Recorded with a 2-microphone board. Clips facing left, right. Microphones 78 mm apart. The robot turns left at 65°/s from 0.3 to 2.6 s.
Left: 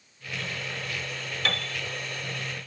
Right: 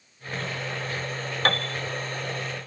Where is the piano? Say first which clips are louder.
Right 6 dB; 50° right (ahead or behind), 0.5 m; by 1.8 s 60° right (ahead or behind), 0.5 m.